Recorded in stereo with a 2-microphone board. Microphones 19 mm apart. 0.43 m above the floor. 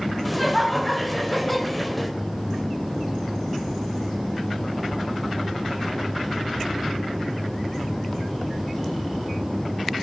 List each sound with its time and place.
0.2 s laughter: centre (ahead or behind), 1.8 m